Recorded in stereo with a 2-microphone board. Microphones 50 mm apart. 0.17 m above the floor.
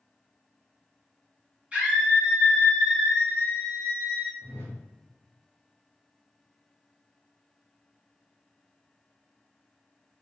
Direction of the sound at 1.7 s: 25° right (ahead or behind).